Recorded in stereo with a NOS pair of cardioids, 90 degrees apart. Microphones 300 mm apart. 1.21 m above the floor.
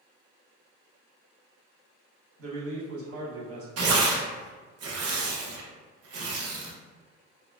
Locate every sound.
2.4 s a man speaking: 50° right, 1.4 m
3.8 s tearing paper: 55° right, 0.8 m